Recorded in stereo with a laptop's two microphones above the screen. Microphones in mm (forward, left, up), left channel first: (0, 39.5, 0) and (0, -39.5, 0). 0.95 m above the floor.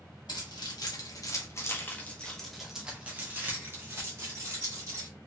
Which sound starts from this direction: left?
Keys jangling, at 0.3 s.